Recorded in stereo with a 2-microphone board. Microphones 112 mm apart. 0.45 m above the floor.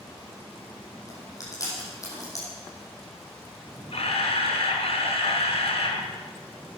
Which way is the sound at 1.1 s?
30° left (ahead or behind).